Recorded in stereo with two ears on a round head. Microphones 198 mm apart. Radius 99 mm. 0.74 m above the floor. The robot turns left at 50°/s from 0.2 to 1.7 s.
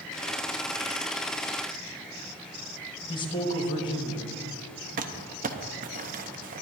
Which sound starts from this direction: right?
Crumpling, at 5.0 s.